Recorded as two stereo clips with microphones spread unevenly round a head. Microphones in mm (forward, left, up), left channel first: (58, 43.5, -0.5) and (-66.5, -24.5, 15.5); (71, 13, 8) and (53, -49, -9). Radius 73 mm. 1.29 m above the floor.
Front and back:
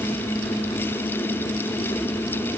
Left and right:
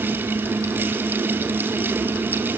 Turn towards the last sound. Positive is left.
No sound to turn to.